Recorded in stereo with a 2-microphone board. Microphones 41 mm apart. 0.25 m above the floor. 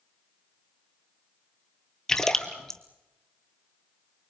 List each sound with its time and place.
2.1 s a splash: 15° left (ahead or behind), 1.6 m